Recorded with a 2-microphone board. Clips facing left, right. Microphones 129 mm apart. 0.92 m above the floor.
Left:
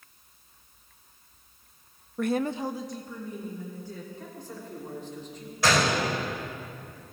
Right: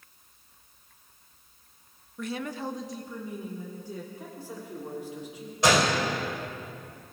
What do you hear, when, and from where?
2.2 s a woman speaking: 60° left (ahead or behind), 0.5 m; by 4.0 s 20° right (ahead or behind), 2.5 m
4.1 s a man speaking: 10° right (ahead or behind), 3 m
5.6 s a gunshot: 20° right (ahead or behind), 3.5 m